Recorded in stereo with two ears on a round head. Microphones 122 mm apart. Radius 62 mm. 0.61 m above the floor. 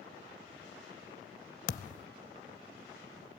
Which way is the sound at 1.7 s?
60° left (ahead or behind).